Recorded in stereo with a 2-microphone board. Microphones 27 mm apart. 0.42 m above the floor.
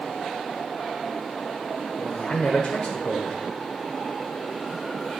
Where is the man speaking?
40° left (ahead or behind), 1.1 m.